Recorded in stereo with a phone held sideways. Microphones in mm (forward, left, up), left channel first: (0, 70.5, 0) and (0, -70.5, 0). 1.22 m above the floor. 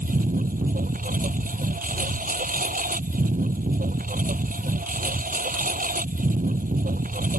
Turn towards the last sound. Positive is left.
turn(degrees=-70)  # may be behind; listen again after turning